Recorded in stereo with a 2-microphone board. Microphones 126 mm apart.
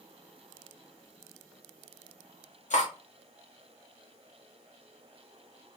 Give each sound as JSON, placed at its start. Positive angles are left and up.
{"t": 2.7, "sound": "cutlery clinking", "side_deg": 70, "distance_m": 0.8}